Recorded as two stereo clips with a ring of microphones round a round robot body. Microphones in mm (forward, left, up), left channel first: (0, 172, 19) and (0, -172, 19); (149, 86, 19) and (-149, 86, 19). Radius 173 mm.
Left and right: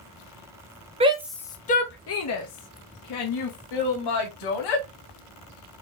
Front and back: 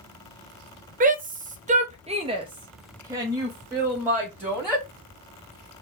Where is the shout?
145° right, 0.6 m; by 4.8 s 95° left, 1.9 m.